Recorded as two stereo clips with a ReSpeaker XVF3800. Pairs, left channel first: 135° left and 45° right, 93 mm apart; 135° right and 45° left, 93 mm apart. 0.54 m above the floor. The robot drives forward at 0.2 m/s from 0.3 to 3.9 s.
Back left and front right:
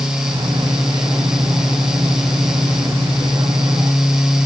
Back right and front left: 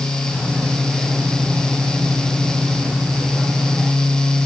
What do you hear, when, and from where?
Only background noise.